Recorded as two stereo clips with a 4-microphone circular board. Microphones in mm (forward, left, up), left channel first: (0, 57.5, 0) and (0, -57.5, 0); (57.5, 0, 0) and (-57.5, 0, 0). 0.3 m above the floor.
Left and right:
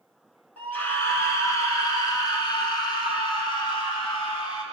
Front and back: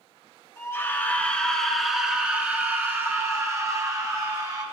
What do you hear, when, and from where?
0.6 s a scream: 30° left, 1.3 m; by 4.6 s 130° left, 2.5 m